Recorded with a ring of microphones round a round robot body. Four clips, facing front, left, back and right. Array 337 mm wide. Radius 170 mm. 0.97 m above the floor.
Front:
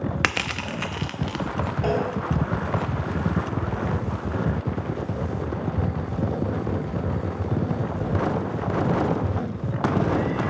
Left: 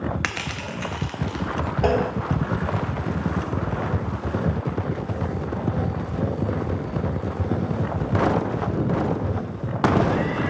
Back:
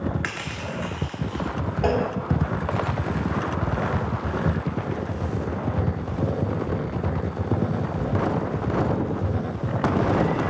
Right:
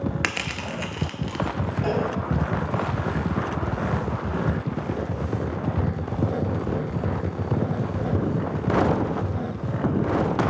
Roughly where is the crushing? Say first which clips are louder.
Even, front 4 dB; ahead.